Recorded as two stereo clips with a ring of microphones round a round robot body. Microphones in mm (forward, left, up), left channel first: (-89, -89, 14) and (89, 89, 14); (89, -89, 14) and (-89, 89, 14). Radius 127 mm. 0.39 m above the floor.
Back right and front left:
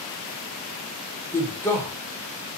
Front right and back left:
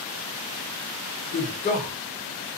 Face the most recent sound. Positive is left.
turn(degrees=-65)